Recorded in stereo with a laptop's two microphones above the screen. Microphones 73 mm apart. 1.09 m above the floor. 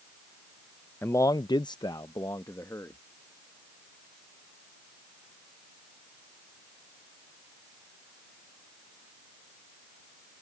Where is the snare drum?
I don't hear a snare drum.